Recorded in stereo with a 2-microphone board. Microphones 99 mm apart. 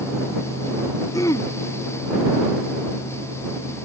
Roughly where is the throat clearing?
Left.